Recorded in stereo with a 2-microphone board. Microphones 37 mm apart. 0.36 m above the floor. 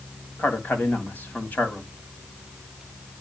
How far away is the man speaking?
About 2.5 m.